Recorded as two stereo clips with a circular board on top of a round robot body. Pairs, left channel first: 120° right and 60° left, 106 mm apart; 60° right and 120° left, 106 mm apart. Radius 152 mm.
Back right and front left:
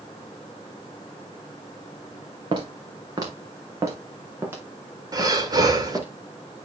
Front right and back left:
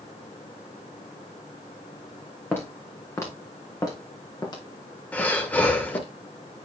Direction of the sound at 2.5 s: 10° left.